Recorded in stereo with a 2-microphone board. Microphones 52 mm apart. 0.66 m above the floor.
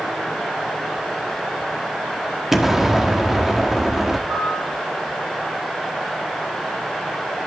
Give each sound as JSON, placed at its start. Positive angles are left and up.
{"t": 2.5, "sound": "an explosion", "side_deg": -5, "distance_m": 1.5}
{"t": 4.3, "sound": "a piano", "side_deg": -60, "distance_m": 8.5}